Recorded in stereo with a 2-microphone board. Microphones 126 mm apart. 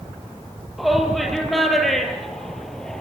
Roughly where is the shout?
Centre.